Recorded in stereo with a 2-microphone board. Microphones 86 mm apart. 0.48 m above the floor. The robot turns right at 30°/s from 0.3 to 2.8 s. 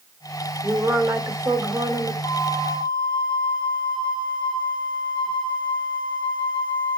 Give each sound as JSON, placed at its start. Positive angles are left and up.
{"t": 0.6, "sound": "a woman speaking", "azimuth_deg": -145, "distance_m": 1.8}
{"t": 2.2, "sound": "a flute", "side_deg": 45, "distance_m": 4.5}